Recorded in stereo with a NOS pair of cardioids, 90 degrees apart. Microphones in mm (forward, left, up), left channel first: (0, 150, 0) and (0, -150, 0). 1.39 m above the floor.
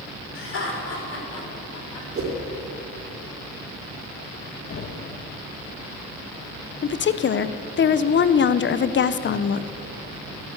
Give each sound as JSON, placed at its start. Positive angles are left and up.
{"t": 0.3, "sound": "laughter", "azimuth_deg": 40, "distance_m": 5.0}
{"t": 2.1, "sound": "a whoosh", "azimuth_deg": -45, "distance_m": 3.0}
{"t": 4.7, "sound": "knocking", "azimuth_deg": 45, "distance_m": 1.3}
{"t": 6.8, "sound": "a woman speaking", "azimuth_deg": 40, "distance_m": 0.7}